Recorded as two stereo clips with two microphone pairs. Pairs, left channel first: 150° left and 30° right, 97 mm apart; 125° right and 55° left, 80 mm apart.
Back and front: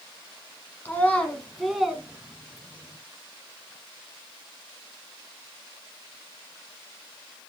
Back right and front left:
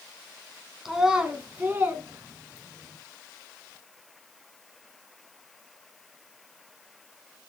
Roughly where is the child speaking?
Behind left.